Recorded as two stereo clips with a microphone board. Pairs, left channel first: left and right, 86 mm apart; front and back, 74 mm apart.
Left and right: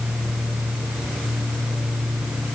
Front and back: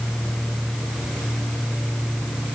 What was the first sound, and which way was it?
Only background noise.